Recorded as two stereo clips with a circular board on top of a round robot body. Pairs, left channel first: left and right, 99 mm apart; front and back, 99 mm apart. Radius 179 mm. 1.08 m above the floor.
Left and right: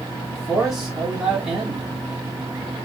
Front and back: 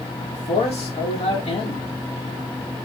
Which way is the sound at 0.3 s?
5° right.